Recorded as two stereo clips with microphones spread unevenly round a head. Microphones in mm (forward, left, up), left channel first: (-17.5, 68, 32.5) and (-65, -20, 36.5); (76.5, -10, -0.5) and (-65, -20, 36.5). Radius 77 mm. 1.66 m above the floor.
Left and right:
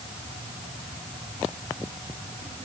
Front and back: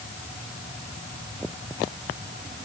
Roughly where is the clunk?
No clunk in this recording.